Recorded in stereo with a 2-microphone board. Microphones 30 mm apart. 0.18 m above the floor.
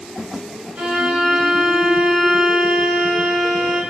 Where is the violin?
50° right (ahead or behind), 1.6 m.